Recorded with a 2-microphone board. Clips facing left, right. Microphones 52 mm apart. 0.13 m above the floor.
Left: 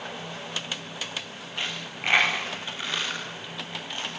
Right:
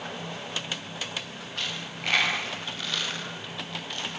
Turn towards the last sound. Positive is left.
turn(degrees=20)  # may be behind; listen again after turning